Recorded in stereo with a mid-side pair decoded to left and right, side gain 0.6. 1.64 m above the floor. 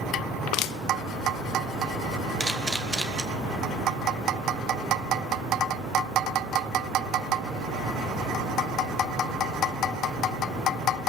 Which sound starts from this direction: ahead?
A camera shutter, at 2.4 s.